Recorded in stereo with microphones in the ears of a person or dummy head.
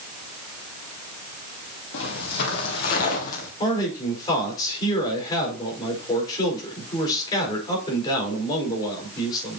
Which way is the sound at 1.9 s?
60° left (ahead or behind).